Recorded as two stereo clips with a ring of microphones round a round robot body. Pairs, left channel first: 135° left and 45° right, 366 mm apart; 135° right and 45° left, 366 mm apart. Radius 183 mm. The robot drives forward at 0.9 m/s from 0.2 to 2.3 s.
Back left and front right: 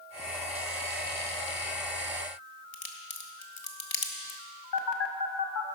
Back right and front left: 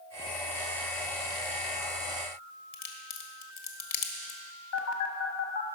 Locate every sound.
2.7 s a crack: 175° right, 1.5 m
4.7 s a phone buzzing: 175° left, 1.4 m